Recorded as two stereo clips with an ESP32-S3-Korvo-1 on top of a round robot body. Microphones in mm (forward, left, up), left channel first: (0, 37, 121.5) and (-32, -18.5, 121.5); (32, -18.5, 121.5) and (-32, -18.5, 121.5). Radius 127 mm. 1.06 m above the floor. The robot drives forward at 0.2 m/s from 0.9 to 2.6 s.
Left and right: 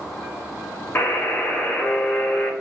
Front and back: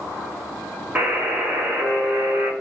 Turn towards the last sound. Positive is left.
turn(degrees=135)